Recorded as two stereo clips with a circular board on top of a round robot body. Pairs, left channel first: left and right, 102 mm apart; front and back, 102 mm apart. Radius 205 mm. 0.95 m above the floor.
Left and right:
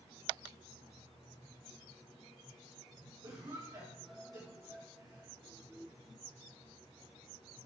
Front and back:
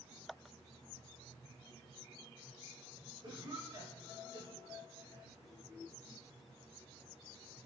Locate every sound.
3.2 s a cough: 135° right, 3 m